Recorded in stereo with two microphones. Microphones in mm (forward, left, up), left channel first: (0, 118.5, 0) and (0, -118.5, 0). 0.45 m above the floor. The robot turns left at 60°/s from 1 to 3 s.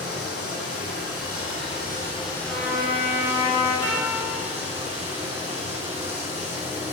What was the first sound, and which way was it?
Running water, 90° left.